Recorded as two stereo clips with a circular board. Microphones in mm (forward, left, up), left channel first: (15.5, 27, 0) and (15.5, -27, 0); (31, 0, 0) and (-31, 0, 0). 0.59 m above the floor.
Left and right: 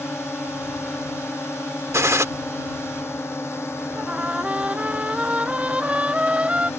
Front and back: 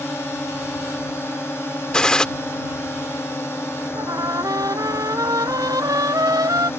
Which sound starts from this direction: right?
A gunshot, at 1.9 s.